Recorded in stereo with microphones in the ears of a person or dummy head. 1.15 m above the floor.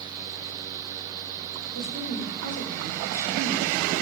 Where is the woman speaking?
80° left, 3.5 m; by 3.9 s 35° left (ahead or behind), 4 m.